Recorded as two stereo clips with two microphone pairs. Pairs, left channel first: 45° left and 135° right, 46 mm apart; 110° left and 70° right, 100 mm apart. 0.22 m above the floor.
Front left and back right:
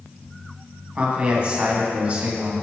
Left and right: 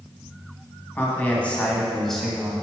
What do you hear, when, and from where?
0.9 s a man speaking: 170° left, 1.7 m; by 2.5 s 150° right, 1.4 m